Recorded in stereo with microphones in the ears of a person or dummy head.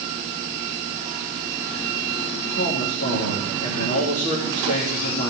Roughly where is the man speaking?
Left.